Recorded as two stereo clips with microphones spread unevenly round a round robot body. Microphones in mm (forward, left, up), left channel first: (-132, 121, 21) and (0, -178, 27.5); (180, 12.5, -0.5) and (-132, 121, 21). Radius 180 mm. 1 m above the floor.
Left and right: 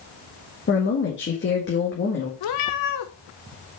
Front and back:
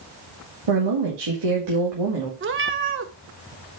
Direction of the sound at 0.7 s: 170° left.